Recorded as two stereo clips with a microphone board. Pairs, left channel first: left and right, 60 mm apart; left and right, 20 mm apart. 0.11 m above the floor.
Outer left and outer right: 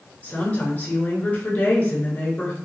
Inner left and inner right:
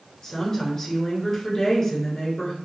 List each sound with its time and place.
0.2 s a woman speaking: 25° left (ahead or behind), 1.2 m